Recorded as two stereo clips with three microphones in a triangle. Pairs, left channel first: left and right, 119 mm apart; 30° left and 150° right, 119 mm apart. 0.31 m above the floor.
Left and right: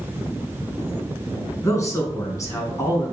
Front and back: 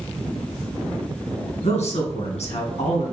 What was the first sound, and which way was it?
A man speaking, 30° left.